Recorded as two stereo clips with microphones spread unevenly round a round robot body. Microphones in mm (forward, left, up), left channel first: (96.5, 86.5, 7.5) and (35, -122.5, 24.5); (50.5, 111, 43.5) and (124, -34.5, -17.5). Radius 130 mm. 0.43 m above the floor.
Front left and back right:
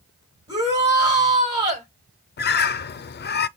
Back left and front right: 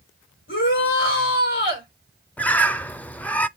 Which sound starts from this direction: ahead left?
A bird, at 2.4 s.